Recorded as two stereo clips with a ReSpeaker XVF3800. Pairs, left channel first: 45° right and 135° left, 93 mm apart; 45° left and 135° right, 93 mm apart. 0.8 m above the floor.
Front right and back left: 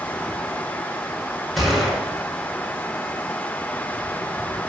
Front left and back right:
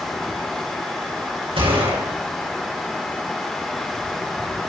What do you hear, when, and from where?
1.6 s a gunshot: 135° right, 5.5 m